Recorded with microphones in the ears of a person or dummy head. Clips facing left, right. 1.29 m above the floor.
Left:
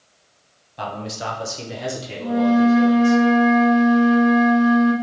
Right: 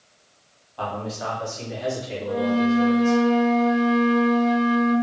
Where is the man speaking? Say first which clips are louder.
Even; 20° left (ahead or behind), 1.0 m; by 3.2 s 60° left (ahead or behind), 1.3 m.